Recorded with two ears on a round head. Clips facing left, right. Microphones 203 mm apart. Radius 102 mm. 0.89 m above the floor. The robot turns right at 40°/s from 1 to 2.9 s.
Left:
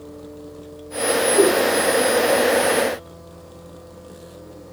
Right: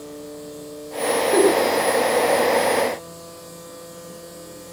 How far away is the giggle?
About 3 m.